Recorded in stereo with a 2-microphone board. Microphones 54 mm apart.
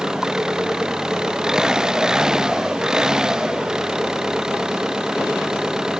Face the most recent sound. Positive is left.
turn(degrees=-10)  # may be behind; listen again after turning